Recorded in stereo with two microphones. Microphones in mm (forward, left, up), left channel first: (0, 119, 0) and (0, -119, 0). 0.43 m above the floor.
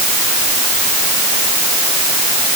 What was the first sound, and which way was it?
Only background noise.